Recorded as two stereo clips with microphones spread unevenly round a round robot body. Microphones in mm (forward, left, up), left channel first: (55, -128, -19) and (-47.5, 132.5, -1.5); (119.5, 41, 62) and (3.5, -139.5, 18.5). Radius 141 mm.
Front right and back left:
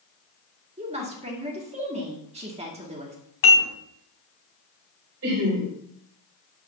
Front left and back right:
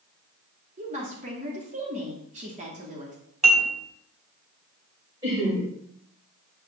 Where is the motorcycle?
No motorcycle in this recording.